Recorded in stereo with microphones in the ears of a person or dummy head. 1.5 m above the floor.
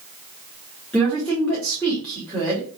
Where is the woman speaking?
5° left (ahead or behind), 1.5 m.